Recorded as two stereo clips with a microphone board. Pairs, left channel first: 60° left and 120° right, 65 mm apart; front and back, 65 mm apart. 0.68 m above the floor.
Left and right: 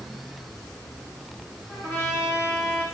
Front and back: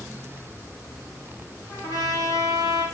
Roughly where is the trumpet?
Ahead.